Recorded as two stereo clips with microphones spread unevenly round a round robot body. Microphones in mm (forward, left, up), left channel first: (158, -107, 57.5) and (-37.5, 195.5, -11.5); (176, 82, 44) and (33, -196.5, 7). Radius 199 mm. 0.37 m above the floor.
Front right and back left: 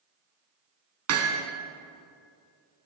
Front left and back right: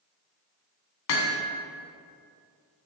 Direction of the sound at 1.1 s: 75° left.